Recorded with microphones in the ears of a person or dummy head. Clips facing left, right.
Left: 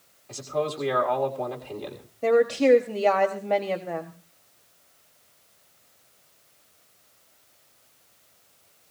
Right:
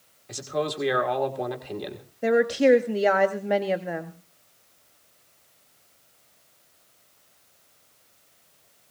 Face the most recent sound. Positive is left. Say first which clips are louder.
# even
turn(degrees=-10)  # may be behind; listen again after turning